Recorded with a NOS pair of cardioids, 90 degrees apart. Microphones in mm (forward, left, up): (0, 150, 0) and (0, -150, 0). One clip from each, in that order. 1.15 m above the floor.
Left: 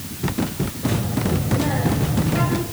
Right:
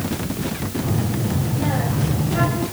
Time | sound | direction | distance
0.8 | a child speaking | 5° right | 5 m